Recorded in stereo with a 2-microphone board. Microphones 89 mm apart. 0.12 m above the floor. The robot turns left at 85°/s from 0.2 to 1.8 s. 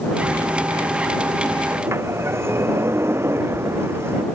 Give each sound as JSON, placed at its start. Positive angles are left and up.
{"t": 1.7, "sound": "a sliding door", "side_deg": -20}